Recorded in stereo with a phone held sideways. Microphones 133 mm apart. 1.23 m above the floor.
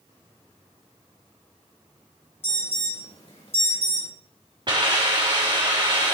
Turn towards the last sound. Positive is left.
turn(degrees=-40)  # may be behind; listen again after turning